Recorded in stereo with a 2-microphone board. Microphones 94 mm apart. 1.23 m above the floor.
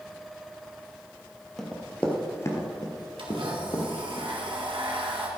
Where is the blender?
75° right (ahead or behind), 1.7 m.